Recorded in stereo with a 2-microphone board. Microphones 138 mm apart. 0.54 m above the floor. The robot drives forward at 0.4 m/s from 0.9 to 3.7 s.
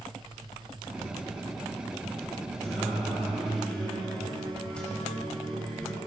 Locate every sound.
2.6 s singing: 5° left (ahead or behind), 6 m